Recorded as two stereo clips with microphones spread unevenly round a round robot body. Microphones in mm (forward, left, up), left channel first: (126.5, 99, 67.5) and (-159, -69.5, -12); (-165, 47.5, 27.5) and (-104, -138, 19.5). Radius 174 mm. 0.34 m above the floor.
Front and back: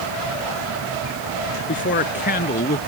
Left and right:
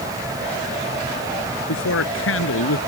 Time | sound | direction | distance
1.7 | a man speaking | 90° left | ?